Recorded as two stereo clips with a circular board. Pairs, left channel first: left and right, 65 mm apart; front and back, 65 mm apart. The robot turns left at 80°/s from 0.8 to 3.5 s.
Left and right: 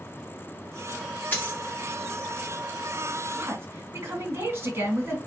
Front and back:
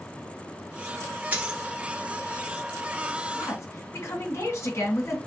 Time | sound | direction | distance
1.3 | a dropped coin | 130° left | 1.2 m
3.3 | a woman speaking | 30° right | 2 m